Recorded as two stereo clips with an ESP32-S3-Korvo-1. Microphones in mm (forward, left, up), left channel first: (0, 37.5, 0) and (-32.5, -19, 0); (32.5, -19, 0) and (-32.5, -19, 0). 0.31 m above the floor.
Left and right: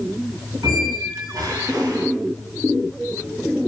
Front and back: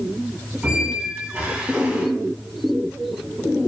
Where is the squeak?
110° right, 0.5 m.